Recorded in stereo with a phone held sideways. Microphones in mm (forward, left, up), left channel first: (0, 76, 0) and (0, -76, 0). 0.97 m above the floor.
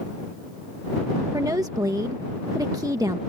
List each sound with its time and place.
1.3 s a woman speaking: 25° right (ahead or behind)